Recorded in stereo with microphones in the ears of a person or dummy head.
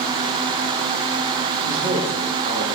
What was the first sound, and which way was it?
A man speaking, 40° right (ahead or behind).